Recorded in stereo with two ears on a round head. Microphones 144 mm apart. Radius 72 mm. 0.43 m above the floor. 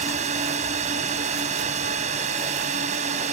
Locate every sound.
0.0 s a drone: 45° right (ahead or behind)